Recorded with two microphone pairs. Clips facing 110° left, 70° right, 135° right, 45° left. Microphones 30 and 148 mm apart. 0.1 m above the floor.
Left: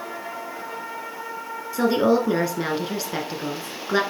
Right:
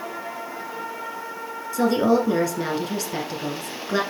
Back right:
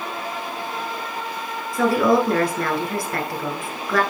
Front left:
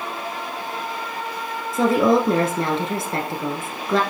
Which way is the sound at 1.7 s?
55° left.